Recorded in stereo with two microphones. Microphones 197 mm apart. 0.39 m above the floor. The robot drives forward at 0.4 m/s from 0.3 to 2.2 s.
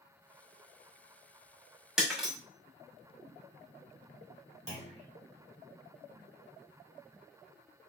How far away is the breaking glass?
About 1.4 m.